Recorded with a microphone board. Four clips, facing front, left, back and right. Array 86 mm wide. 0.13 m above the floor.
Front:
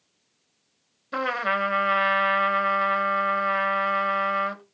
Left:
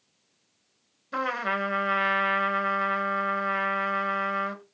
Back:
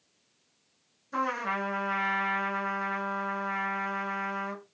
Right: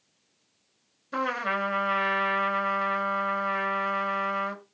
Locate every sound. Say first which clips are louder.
1.1 s a trumpet: even, front 5 dB; 10° left, 0.6 m